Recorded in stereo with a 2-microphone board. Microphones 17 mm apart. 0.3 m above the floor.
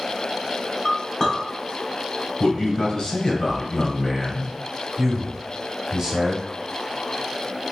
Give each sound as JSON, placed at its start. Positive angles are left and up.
{"t": 0.8, "sound": "a clink", "side_deg": 30, "distance_m": 2.0}
{"t": 2.4, "sound": "a man speaking", "side_deg": 45, "distance_m": 1.7}
{"t": 5.0, "sound": "a man speaking", "side_deg": -25, "distance_m": 0.9}